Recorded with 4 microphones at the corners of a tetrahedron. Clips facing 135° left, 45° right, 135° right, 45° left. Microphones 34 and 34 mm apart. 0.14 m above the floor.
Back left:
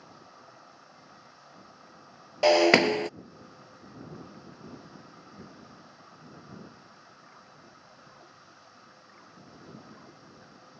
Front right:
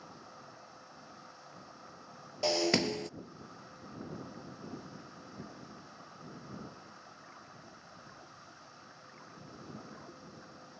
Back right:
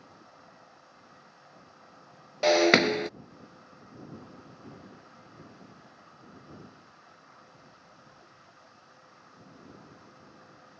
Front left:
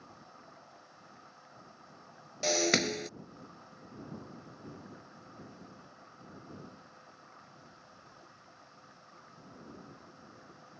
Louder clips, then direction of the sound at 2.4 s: Back left 11 dB, back right 9 dB; 175° left.